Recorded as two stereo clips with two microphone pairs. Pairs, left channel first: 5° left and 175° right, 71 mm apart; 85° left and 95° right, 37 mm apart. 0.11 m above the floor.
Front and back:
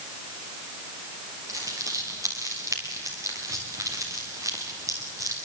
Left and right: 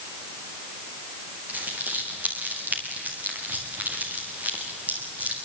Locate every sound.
1.5 s crumpling: 135° right, 5.5 m